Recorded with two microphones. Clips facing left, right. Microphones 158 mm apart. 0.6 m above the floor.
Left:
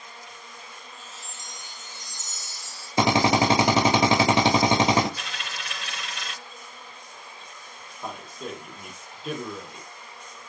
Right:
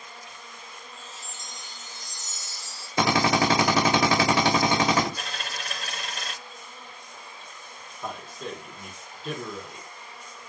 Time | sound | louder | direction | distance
1.0 | a chime | even | 30° right (ahead or behind) | 1.6 m
3.0 | a drill | left 2 dB | 25° left (ahead or behind) | 1.0 m
5.2 | a dropped coin | right 2 dB | 40° right (ahead or behind) | 0.6 m
8.0 | a man speaking | even | 5° left (ahead or behind) | 0.9 m